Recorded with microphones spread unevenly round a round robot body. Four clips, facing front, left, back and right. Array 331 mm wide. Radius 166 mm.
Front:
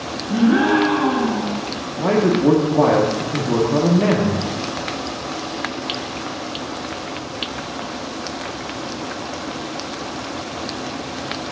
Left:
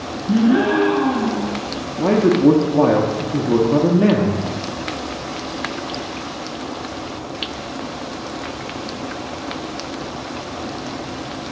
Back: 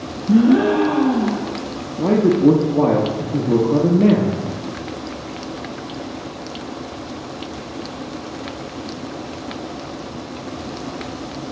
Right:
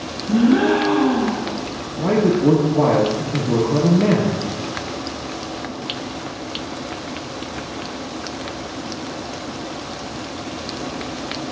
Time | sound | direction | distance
0.3 | a gasp | 165° left | 0.9 m
2.0 | a man speaking | 140° left | 0.7 m